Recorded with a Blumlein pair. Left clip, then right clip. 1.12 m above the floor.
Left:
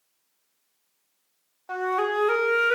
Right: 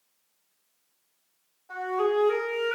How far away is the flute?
About 1.2 m.